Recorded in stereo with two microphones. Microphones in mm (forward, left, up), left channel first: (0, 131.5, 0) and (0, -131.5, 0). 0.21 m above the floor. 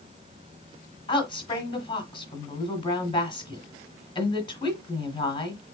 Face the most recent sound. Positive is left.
turn(degrees=20)  # may be behind; listen again after turning